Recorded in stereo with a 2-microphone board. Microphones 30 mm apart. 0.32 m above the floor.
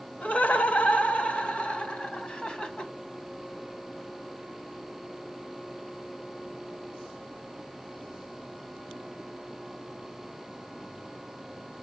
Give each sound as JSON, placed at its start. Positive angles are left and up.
{"t": 0.2, "sound": "laughter", "side_deg": 55, "distance_m": 1.6}